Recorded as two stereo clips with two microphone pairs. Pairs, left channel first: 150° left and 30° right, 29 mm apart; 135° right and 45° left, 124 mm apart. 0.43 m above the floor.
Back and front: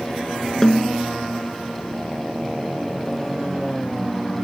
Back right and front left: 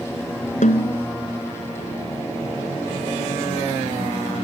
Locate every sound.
0.6 s a snare drum: 140° right